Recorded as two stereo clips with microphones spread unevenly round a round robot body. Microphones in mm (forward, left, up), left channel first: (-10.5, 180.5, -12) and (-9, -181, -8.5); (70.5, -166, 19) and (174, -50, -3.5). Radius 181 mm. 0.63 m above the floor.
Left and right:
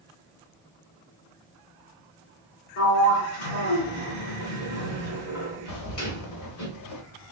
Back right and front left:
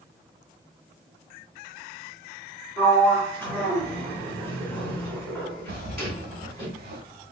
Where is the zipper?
45° left, 0.9 m.